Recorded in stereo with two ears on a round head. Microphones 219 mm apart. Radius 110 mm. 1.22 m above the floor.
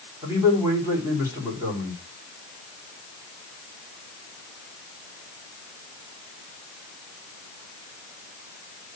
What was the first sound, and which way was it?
A man speaking, 10° right (ahead or behind).